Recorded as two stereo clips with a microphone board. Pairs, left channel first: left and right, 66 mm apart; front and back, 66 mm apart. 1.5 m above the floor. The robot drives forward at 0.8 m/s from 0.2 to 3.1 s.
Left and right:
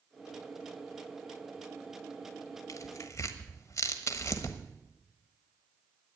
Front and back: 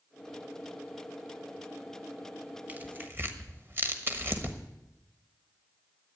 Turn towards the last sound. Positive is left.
turn(degrees=130)